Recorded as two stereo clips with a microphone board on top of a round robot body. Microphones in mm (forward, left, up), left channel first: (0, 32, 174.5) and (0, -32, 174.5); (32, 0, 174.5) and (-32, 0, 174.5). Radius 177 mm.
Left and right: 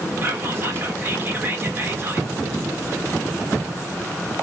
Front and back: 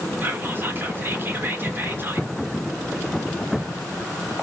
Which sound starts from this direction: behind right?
Whispering, at 0.2 s.